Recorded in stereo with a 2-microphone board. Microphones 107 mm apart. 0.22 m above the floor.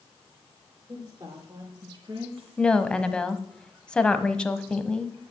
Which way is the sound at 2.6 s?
10° left (ahead or behind).